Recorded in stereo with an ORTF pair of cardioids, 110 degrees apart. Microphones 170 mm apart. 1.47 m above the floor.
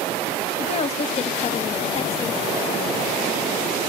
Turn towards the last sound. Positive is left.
turn(degrees=40)